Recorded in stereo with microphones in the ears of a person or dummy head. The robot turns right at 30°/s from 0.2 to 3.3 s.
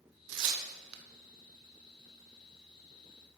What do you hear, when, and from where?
0.3 s tearing paper: 70° right (ahead or behind), 1.2 m; by 1.0 s 85° right, 1.2 m